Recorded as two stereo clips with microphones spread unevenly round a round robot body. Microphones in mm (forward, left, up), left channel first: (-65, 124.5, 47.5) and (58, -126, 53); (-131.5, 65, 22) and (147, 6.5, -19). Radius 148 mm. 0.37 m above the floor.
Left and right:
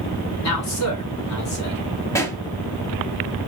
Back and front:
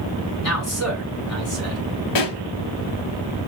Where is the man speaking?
135° left, 4 m.